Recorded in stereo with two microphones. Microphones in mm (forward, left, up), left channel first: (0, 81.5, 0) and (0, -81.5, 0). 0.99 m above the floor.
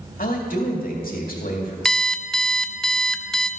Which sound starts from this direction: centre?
An alarm clock, at 1.9 s.